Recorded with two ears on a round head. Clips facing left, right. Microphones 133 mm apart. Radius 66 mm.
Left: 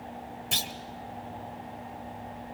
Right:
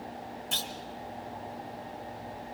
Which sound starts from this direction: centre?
A clunk, at 0.5 s.